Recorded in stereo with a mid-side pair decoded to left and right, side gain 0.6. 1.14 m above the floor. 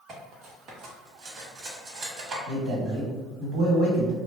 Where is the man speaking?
70° right, 1.2 m.